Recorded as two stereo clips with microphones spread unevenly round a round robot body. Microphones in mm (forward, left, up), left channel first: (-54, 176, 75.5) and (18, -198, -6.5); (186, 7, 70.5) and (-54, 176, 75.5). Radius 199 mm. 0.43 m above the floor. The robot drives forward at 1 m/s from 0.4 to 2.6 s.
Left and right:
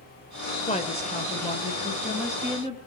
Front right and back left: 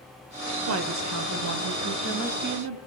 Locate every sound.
0.7 s a woman speaking: straight behind, 2 m